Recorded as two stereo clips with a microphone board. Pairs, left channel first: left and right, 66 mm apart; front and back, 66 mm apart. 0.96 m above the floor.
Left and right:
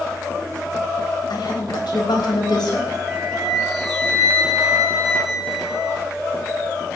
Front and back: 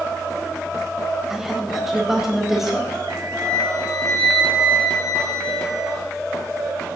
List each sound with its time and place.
1.3 s a woman speaking: 95° left, 4 m
3.1 s a flute: 175° right, 5 m